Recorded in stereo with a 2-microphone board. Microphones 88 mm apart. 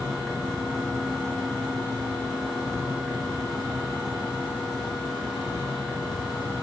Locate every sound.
0.0 s an insect: centre (ahead or behind), 1.4 m